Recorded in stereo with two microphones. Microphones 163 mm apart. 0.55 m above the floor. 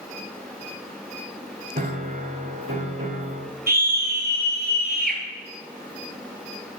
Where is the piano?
70° right (ahead or behind), 1.0 m.